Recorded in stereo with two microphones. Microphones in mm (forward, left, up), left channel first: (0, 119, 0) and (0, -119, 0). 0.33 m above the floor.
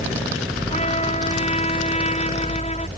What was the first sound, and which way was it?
A trumpet, 30° left (ahead or behind).